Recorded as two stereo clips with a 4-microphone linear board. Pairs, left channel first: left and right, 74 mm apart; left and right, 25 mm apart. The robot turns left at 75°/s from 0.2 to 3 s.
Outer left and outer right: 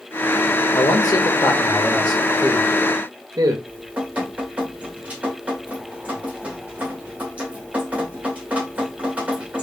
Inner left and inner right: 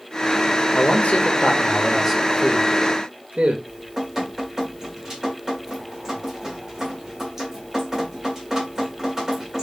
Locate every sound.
0.7 s a man speaking: 115° left, 0.8 m; by 3.6 s 55° right, 0.8 m
3.7 s dripping: 20° right (ahead or behind), 1.7 m